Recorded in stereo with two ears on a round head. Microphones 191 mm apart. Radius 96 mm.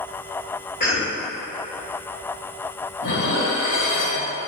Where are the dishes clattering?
65° left (ahead or behind), 2.5 m.